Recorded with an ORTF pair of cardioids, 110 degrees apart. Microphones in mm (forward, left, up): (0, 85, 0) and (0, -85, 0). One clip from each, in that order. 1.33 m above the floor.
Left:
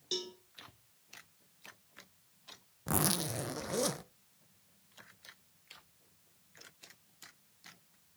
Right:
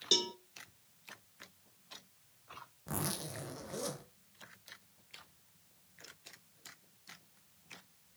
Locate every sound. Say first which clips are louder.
0.1 s a cowbell: right 8 dB; 45° right, 1.1 m
2.9 s a zipper: left 7 dB; 45° left, 0.7 m